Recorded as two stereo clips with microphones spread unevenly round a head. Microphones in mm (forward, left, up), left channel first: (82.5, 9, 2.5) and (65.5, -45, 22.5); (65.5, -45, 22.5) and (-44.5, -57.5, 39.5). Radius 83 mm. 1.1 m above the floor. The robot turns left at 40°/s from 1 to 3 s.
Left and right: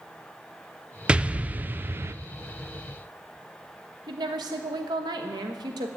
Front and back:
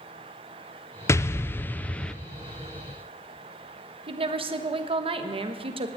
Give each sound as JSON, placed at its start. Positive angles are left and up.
{"t": 1.1, "sound": "an explosion", "azimuth_deg": -15, "distance_m": 0.6}
{"t": 4.1, "sound": "a woman speaking", "azimuth_deg": -135, "distance_m": 1.2}